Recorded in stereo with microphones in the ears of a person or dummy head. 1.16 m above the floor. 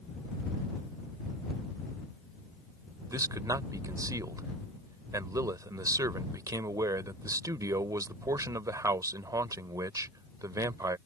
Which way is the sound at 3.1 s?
15° right (ahead or behind).